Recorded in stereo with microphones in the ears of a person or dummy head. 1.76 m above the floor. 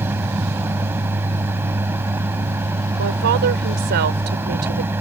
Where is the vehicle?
10° right (ahead or behind).